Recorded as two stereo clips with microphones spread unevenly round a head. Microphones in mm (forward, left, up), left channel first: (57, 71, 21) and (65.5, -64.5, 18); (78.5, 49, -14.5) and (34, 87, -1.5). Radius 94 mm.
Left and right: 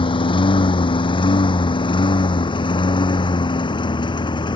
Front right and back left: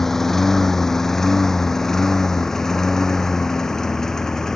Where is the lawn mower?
45° left; by 4.6 s 40° left.